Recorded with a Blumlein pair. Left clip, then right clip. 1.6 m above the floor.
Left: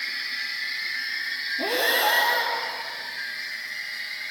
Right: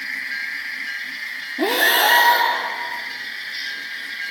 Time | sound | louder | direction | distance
1.6 | breathing | right 7 dB | 35° right | 3.5 m